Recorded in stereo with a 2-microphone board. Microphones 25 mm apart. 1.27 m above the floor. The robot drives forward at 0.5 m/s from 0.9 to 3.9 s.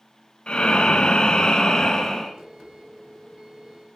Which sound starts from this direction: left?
Breathing, at 0.5 s.